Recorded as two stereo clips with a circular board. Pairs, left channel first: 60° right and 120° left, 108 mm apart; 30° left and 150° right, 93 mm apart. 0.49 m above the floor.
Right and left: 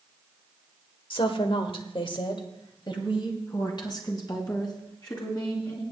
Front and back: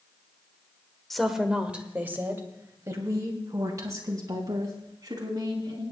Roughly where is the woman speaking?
Ahead right.